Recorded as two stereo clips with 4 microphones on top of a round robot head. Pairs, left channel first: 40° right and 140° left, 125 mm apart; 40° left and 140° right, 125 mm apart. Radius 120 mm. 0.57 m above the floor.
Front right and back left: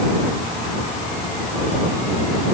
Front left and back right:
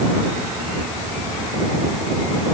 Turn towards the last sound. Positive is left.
No sound to turn to.